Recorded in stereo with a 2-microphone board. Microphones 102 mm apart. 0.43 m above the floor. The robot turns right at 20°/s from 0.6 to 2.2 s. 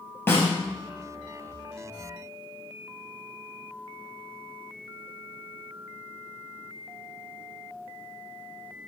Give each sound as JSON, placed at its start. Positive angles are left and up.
{"t": 0.3, "sound": "a snare drum", "side_deg": 20, "distance_m": 5.0}